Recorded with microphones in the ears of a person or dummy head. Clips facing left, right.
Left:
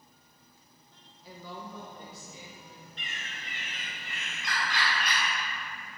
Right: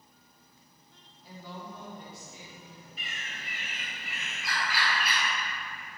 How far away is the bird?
About 1.9 m.